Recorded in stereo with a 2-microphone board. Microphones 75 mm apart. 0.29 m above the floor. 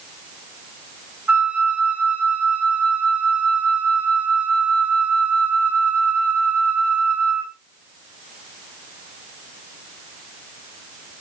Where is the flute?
20° right (ahead or behind), 1.4 m.